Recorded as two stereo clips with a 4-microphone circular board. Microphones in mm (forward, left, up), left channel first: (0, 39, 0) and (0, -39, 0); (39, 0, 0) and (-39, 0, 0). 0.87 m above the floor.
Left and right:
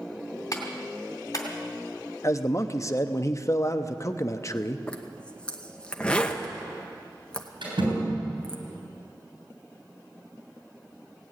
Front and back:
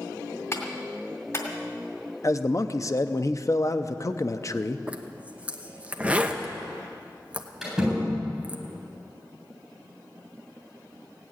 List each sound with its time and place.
0.5 s a clap: 50° left, 2.5 m
2.2 s a man speaking: 45° left, 0.7 m
4.9 s a zipper: 140° left, 1.0 m
7.6 s a door slam: 90° right, 7.5 m